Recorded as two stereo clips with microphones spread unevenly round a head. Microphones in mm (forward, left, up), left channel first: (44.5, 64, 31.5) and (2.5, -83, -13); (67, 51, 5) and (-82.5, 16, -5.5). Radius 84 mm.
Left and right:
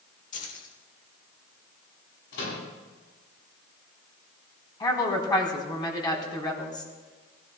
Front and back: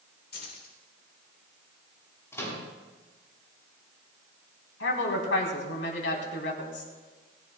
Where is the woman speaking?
5° left, 4 m.